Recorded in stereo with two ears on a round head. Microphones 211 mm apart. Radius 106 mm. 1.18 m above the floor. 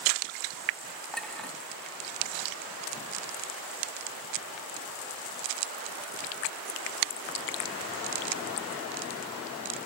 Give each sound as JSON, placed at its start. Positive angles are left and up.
{"t": 1.1, "sound": "a clink", "side_deg": 5, "distance_m": 0.8}